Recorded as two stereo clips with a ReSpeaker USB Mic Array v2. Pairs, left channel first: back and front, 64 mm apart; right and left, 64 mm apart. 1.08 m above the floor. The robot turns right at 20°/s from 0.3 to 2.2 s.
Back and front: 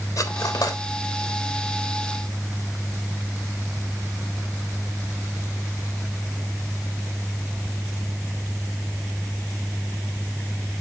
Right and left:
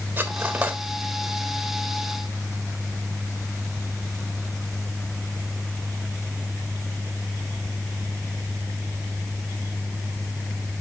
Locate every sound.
0.2 s cutlery clinking: 155° left, 1.3 m; by 0.8 s 165° left, 1.3 m